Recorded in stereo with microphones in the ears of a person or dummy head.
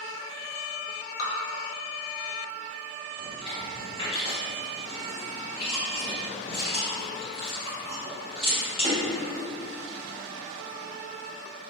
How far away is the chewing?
About 1.4 m.